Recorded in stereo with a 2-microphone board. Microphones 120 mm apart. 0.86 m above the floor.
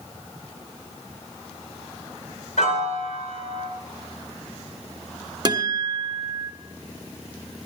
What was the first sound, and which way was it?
A piano, 80° left.